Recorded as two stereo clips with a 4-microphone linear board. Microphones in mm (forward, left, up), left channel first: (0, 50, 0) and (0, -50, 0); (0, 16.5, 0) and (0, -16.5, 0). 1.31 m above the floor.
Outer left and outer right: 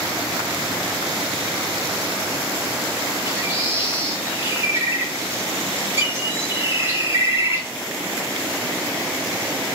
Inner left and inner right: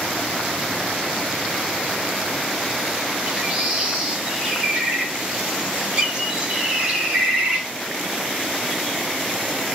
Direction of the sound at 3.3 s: 25° right (ahead or behind).